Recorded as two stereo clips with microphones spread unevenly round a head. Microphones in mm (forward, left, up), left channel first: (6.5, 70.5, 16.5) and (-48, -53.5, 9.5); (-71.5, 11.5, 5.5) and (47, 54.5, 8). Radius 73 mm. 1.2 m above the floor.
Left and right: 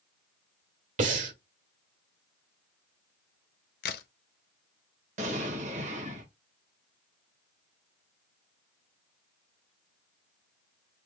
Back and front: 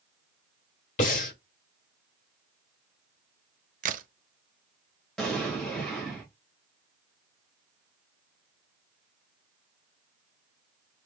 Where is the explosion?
75° right, 1.5 m.